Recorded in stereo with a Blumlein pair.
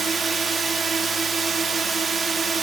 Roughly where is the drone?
Ahead.